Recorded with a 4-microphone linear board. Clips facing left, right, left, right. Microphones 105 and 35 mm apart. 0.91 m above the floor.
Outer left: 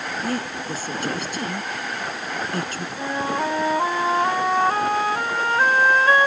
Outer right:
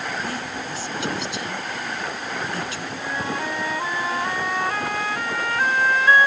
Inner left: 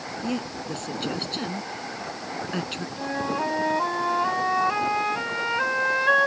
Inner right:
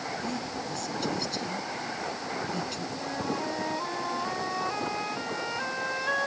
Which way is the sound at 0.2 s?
45° left (ahead or behind).